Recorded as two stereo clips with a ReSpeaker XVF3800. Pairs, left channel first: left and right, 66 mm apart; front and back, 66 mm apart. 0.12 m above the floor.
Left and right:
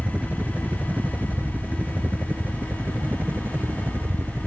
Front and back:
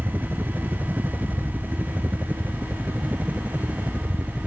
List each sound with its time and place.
0.0 s a helicopter: 150° right; by 4.5 s 125° right